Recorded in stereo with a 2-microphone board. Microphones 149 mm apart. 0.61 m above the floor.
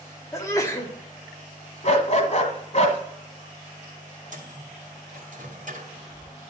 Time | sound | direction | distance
0.3 | a sneeze | 20° left (ahead or behind) | 1.3 m
1.8 | a dog barking | 50° left (ahead or behind) | 1.3 m
4.3 | a microwave | 60° right (ahead or behind) | 1.7 m